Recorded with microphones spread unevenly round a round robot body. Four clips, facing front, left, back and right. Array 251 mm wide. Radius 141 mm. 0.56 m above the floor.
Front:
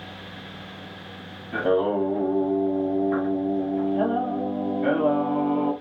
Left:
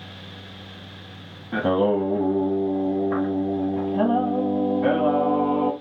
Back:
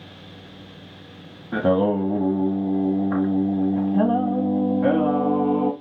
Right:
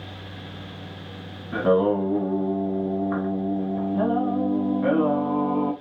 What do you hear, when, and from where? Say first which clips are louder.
1.5 s singing: even, back 2 dB; straight behind, 1.0 m